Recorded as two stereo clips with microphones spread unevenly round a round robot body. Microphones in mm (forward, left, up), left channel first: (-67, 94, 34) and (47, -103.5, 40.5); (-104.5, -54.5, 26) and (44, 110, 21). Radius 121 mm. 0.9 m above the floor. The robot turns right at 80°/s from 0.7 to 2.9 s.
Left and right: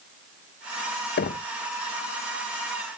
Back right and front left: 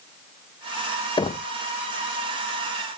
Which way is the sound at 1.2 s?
155° left.